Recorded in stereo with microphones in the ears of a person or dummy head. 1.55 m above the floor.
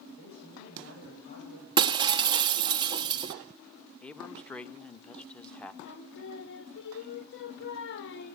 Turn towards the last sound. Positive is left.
turn(degrees=60)  # may be behind; listen again after turning